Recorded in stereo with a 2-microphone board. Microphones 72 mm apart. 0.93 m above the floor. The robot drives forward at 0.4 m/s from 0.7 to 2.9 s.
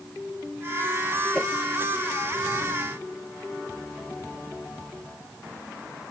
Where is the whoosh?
5° left (ahead or behind).